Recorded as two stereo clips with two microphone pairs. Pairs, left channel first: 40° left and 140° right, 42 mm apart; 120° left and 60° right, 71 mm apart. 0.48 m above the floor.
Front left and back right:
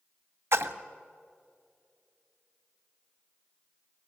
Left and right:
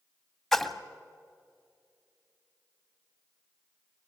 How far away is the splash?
About 0.8 m.